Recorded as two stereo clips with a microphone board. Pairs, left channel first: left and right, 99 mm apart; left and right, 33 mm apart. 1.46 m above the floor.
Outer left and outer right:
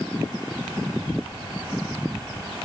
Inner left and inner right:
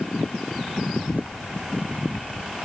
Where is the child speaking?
85° right; by 2.6 s 80° right.